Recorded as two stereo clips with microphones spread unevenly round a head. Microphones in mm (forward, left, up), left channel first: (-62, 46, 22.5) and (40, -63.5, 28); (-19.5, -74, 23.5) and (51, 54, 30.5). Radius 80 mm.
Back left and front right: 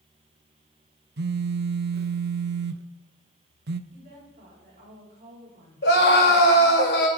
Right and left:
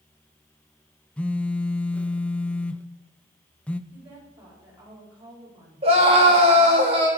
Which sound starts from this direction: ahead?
A woman speaking, at 3.9 s.